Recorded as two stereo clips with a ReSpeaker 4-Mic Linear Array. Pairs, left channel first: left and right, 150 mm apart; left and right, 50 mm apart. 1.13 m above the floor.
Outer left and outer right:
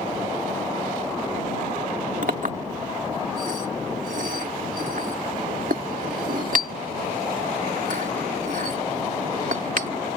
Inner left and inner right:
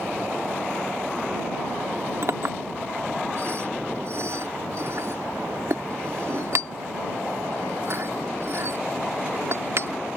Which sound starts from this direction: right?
A clink, at 2.2 s.